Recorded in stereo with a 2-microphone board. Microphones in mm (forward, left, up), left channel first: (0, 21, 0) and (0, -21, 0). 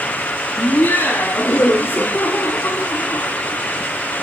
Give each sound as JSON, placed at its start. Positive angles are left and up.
{"t": 0.6, "sound": "laughter", "side_deg": 70, "distance_m": 10.0}